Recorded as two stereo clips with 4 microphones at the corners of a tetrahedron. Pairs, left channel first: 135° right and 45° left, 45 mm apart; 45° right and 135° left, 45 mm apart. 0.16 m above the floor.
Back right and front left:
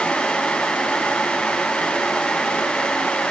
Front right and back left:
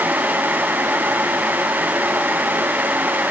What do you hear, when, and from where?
Only background noise.